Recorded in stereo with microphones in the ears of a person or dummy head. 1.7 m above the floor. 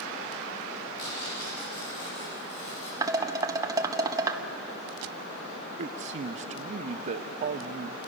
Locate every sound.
1.0 s tearing paper: 70° left (ahead or behind), 10 m
3.0 s dishes clattering: 20° right (ahead or behind), 1.5 m
5.8 s a man speaking: 45° right (ahead or behind), 0.8 m